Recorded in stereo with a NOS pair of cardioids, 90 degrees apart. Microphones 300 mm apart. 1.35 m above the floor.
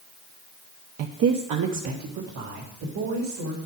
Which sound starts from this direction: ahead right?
A woman speaking, at 1.0 s.